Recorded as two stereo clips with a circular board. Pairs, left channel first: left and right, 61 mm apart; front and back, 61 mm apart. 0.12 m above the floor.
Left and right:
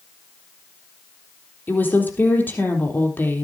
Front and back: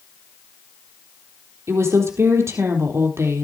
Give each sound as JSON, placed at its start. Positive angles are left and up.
{"t": 1.7, "sound": "a woman speaking", "azimuth_deg": 145, "distance_m": 3.5}